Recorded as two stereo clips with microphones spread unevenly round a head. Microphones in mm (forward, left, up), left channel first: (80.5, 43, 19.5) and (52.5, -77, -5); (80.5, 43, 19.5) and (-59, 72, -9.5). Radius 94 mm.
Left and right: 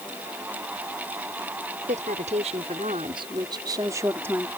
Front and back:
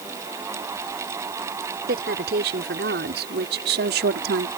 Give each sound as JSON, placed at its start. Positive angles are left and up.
{"t": 1.9, "sound": "a woman speaking", "azimuth_deg": -155}